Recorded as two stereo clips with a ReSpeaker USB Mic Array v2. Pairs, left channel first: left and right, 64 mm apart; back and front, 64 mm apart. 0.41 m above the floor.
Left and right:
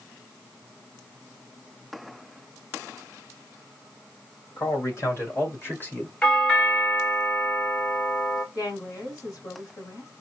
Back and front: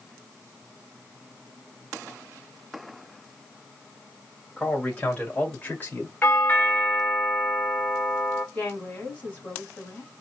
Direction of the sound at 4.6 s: 105° left.